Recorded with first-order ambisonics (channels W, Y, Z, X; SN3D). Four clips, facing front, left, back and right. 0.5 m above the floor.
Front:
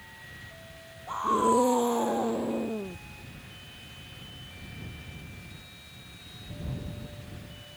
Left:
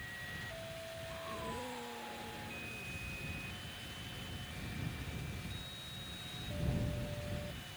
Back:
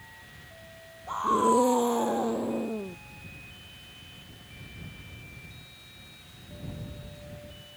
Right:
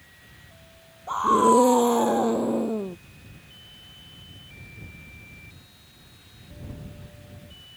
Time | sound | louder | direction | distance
1.1 | a scream | right 28 dB, back 1 dB | 95° right | ?